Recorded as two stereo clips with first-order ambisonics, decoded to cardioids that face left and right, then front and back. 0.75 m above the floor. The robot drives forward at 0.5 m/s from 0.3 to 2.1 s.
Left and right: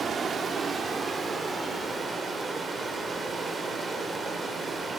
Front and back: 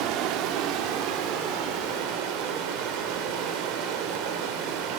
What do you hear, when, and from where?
0.0 s running water: 160° right, 1.5 m; by 5.0 s 165° right, 2.5 m